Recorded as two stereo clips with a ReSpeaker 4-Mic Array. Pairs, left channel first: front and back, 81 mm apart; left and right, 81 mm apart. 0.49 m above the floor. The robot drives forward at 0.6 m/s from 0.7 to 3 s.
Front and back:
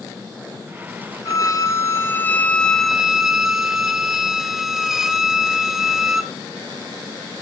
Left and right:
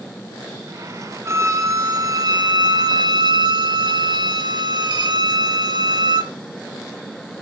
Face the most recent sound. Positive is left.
turn(degrees=-95)